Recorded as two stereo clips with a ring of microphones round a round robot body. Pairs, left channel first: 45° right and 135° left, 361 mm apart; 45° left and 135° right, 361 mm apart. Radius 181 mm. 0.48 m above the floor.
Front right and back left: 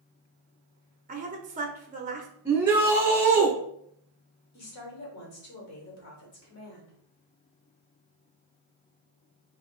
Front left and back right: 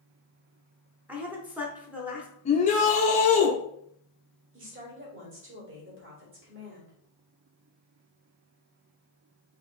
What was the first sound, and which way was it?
A woman speaking, 145° left.